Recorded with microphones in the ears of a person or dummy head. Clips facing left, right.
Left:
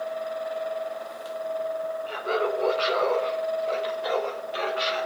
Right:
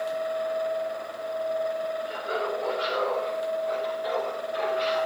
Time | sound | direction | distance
2.1 | laughter | 65° left (ahead or behind) | 1.7 m